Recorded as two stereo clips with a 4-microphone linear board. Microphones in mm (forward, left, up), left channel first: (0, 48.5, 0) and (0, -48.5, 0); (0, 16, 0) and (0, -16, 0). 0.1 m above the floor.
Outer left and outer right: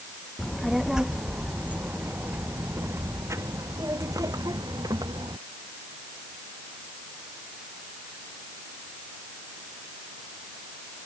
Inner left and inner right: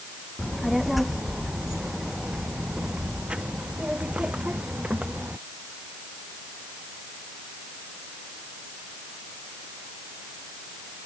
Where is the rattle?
I don't hear a rattle.